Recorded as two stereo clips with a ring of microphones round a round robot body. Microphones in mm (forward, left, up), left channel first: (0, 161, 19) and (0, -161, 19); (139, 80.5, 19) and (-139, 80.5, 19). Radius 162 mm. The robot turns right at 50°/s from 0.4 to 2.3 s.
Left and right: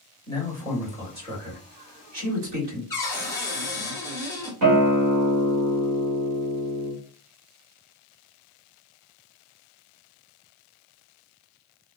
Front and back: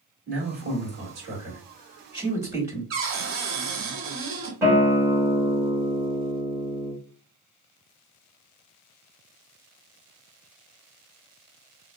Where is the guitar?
100° right, 1.9 m.